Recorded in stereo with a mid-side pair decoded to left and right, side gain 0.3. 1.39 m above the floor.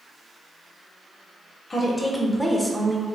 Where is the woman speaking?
40° left, 0.8 m; by 3.0 s 25° right, 1.0 m.